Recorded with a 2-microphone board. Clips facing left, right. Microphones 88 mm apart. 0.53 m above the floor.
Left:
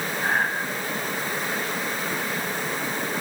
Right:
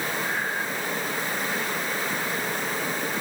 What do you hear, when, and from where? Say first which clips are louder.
0.2 s breathing: left 4 dB; 75° left (ahead or behind), 4.5 m